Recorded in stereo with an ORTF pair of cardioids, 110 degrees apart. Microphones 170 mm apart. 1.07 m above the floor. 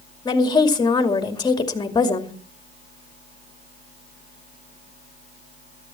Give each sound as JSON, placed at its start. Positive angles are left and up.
{"t": 0.2, "sound": "a woman speaking", "azimuth_deg": 25, "distance_m": 2.5}